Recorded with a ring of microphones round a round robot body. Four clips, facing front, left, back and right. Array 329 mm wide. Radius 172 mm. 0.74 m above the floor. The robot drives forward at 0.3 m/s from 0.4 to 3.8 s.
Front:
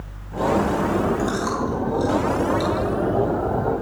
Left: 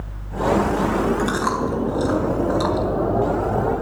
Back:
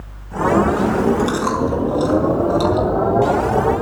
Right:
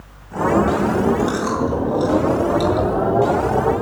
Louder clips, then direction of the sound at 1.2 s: Right 2 dB, back 5 dB; 130° left.